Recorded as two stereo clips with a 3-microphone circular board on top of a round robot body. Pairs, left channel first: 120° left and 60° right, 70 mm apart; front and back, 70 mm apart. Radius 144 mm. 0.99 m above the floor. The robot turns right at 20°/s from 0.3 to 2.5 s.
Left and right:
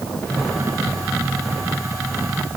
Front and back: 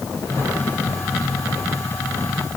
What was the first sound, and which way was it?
Only background noise.